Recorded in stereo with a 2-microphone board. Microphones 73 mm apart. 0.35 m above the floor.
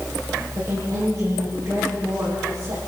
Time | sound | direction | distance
0.6 | a woman speaking | 45° right (ahead or behind) | 9.5 m